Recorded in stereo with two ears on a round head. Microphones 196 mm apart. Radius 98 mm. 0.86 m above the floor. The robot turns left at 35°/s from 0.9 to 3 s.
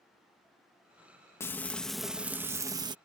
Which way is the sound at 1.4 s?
20° left.